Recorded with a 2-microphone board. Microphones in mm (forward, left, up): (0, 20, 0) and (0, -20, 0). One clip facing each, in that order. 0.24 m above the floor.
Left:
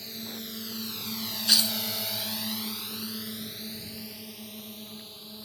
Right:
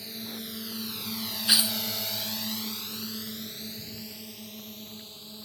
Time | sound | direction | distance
0.0 | a drone | 5° right (ahead or behind) | ?
1.5 | tearing paper | 15° right (ahead or behind) | ?